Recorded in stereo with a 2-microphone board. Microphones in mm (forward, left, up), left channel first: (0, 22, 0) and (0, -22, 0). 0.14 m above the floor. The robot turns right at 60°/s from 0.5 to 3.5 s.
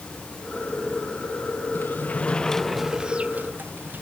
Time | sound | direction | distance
1.8 | a sliding door | 125° left | ?